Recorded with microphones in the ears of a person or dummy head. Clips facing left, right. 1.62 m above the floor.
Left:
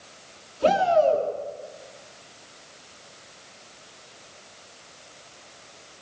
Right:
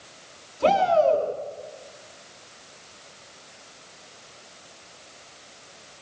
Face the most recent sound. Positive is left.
turn(degrees=-5)  # may be behind; listen again after turning